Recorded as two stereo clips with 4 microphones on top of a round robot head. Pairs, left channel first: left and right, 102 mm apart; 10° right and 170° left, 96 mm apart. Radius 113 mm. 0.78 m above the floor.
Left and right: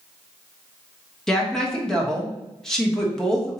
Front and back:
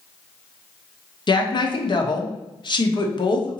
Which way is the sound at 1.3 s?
5° left.